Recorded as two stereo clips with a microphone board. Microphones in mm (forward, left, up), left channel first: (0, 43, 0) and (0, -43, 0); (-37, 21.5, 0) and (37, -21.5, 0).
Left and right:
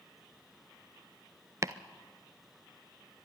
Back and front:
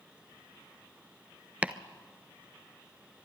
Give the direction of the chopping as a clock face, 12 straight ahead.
3 o'clock.